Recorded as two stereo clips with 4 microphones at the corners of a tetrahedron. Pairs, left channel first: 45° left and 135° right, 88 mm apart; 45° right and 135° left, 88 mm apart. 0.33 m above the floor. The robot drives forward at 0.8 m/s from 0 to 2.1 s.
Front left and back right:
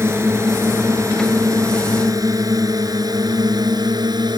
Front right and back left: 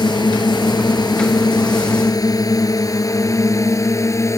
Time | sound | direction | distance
0.0 | a drone | 75° right | ?